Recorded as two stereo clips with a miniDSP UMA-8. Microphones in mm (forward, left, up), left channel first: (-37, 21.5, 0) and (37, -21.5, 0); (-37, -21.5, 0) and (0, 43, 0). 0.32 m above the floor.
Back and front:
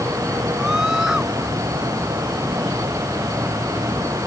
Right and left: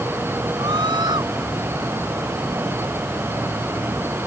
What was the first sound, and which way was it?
A scream, 55° left.